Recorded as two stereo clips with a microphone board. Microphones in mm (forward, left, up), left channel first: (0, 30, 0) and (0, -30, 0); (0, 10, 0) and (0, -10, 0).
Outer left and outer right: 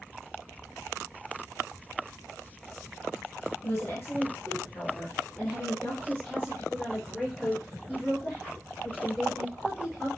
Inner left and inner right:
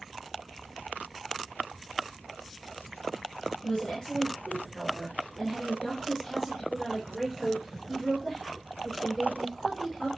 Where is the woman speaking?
45° left (ahead or behind), 1.6 m; by 10.1 s 5° left (ahead or behind), 4.5 m.